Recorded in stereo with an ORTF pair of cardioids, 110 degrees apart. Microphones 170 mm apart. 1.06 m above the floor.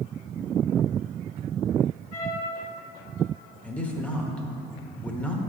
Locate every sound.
2.1 s a trumpet: 35° left, 1.8 m
3.6 s a man speaking: 10° left, 1.1 m